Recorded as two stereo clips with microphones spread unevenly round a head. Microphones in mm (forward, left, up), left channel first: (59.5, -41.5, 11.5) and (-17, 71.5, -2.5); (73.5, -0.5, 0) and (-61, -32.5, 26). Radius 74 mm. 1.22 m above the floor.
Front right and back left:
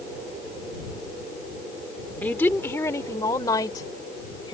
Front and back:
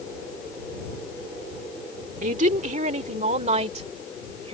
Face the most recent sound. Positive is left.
turn(degrees=-120)